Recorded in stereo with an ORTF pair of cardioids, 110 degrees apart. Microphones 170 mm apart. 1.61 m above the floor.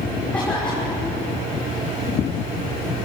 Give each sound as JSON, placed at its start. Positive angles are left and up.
{"t": 0.3, "sound": "a cough", "azimuth_deg": 5, "distance_m": 6.0}